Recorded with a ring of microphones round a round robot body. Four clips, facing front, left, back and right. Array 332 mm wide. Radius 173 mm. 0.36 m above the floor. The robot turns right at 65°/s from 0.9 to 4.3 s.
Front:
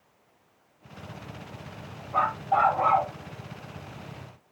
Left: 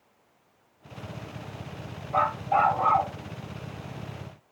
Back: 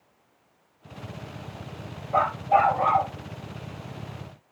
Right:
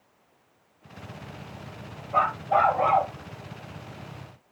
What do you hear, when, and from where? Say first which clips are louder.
2.1 s a dog barking: right 1 dB, back 3 dB; 170° right, 3.5 m; by 3.1 s 105° right, 3.5 m